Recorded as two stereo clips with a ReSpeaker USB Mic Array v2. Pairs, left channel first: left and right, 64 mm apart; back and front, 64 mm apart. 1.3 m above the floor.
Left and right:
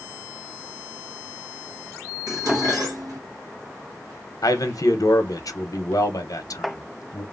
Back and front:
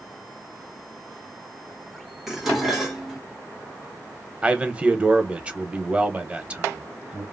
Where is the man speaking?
70° left, 0.8 m.